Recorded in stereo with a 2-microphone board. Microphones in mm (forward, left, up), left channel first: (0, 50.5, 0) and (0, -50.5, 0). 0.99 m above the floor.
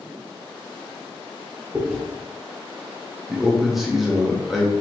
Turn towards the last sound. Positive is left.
turn(degrees=0)  # may be behind; listen again after turning